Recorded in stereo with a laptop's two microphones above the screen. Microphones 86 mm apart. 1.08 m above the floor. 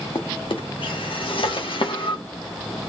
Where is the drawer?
85° left, 1.3 m.